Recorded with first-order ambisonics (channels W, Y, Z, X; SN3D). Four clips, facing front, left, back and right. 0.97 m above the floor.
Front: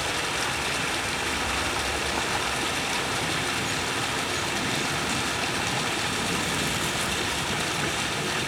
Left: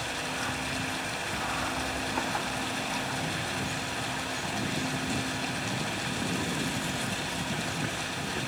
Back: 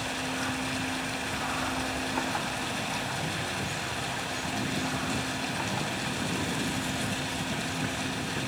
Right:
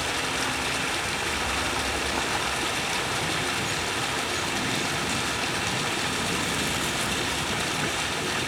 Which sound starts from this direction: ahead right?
Running water, at 0.0 s.